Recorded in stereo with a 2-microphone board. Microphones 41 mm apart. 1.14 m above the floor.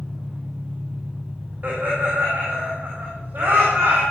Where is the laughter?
45° right (ahead or behind), 4 m.